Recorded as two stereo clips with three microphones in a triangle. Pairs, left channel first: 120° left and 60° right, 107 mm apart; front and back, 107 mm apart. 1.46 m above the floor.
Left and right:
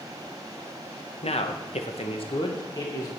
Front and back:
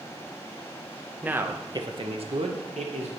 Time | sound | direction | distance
1.2 | a man speaking | 105° left | 1.1 m